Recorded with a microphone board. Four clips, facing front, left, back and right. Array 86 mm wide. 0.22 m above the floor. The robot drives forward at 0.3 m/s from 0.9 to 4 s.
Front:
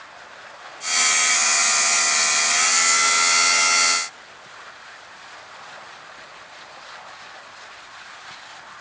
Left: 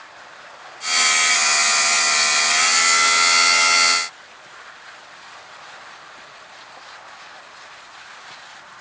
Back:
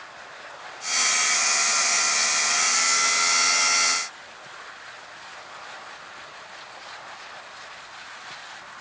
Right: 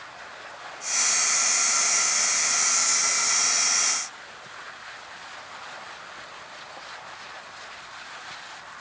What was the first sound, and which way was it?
Only background noise.